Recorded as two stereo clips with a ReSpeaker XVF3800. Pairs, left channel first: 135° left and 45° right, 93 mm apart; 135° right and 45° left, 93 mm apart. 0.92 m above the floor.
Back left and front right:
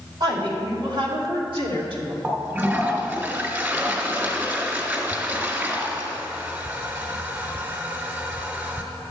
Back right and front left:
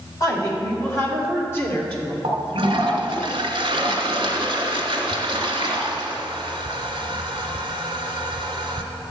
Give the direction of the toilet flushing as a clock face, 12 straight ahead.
11 o'clock.